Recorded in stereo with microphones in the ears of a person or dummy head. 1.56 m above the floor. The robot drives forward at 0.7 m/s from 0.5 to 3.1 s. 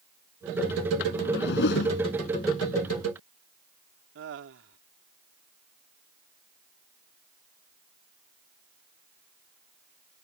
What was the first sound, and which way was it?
A whoosh, 65° left (ahead or behind).